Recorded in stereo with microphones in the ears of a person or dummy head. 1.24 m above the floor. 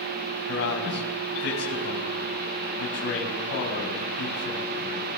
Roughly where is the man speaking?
Left.